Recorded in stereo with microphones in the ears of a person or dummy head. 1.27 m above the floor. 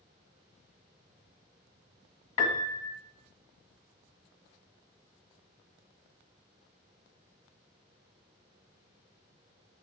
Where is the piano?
40° left (ahead or behind), 1.5 m.